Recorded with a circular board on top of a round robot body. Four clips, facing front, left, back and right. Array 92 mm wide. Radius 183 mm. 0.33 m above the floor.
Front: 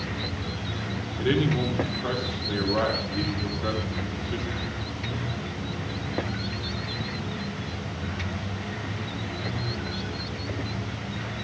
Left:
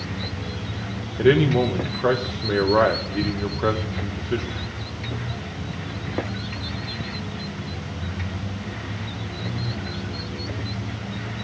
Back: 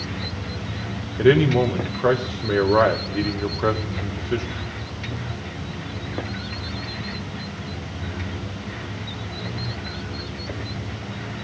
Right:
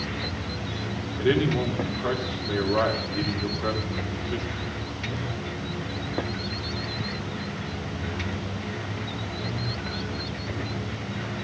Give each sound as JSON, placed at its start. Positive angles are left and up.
{"t": 1.2, "sound": "a man speaking", "azimuth_deg": 140, "distance_m": 1.9}